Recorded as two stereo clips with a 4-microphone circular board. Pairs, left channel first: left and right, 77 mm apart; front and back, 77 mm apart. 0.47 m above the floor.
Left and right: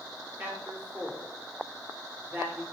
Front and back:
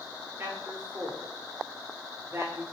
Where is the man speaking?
135° right, 1.5 m.